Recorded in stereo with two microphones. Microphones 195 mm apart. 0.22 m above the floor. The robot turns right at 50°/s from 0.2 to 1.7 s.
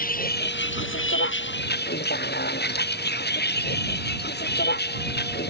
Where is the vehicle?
45° left; by 5.5 s 120° left.